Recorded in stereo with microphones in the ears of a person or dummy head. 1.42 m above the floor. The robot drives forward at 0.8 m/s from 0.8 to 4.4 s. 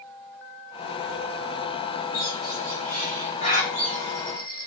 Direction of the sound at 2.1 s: 45° left (ahead or behind).